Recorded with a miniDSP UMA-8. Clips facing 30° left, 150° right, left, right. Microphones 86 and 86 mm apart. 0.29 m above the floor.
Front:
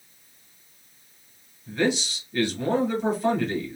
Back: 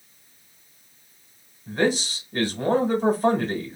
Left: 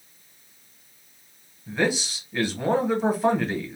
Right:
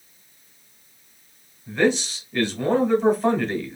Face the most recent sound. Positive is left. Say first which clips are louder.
# back 2 dB, right 4 dB
turn(degrees=170)